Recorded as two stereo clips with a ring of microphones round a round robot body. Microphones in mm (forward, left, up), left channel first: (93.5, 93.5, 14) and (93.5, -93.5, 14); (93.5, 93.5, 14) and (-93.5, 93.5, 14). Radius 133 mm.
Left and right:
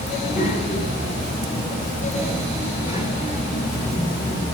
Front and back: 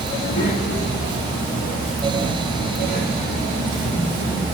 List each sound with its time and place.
0.1 s a child speaking: 45° left, 6.5 m; by 4.4 s 30° left, 7.5 m